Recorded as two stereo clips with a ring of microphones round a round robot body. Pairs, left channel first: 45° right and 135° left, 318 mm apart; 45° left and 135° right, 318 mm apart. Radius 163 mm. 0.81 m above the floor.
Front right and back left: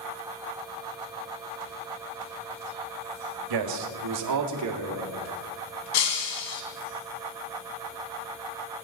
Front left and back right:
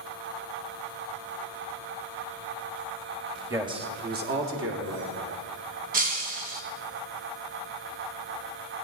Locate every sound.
3.5 s a man speaking: 140° left, 1.6 m; by 5.4 s 175° right, 2.5 m
5.9 s breaking glass: 70° right, 2 m